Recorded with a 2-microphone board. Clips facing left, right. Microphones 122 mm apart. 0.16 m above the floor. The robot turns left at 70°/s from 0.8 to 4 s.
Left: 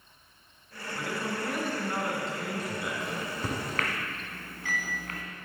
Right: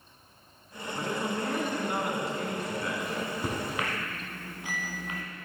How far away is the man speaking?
About 1.5 m.